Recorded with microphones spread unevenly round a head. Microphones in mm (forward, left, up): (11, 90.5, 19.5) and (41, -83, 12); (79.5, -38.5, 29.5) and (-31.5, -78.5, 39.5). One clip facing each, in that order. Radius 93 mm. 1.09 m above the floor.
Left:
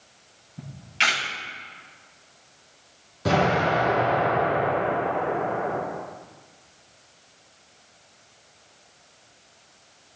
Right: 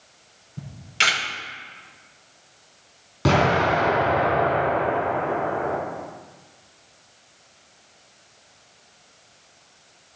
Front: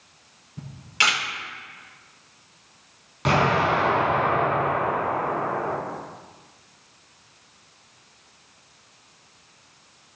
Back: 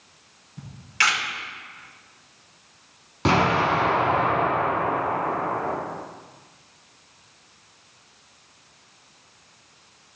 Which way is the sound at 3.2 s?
105° right.